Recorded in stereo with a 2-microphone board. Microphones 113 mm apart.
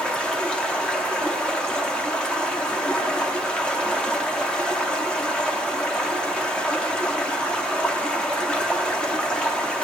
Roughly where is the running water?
Centre.